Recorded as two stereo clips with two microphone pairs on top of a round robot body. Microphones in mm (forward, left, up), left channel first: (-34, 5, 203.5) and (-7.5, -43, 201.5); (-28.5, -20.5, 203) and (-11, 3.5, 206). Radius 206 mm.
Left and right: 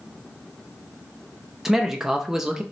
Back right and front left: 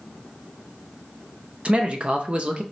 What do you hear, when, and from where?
1.6 s a man speaking: 15° left, 0.7 m